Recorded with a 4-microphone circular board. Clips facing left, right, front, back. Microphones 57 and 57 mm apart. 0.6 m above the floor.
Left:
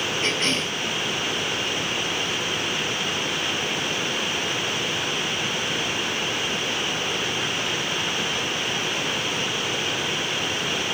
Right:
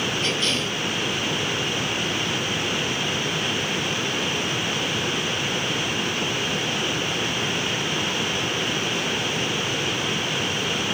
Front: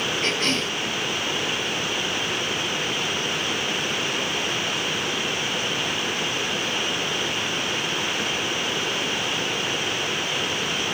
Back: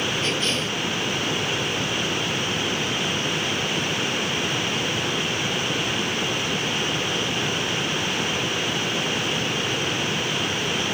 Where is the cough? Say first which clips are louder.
Even, front 1 dB; 40° left, 4.5 m.